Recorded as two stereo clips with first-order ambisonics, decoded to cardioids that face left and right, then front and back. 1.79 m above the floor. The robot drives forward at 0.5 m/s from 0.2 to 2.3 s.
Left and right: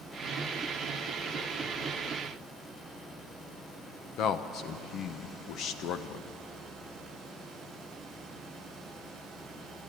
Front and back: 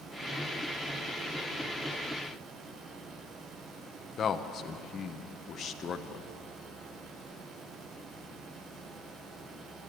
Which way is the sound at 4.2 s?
55° left.